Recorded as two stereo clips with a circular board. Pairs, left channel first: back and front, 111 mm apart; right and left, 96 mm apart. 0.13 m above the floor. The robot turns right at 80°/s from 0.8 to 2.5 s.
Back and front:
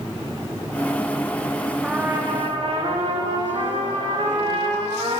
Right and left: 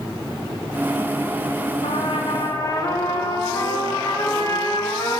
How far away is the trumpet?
About 5 m.